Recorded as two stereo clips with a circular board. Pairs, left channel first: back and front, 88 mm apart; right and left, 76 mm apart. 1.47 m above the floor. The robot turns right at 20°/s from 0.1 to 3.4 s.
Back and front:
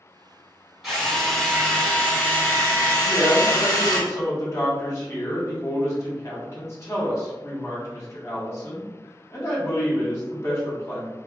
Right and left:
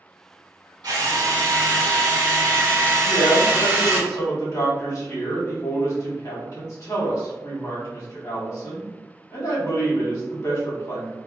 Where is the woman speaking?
135° right, 1.2 m; by 11.0 s 125° right, 1.2 m.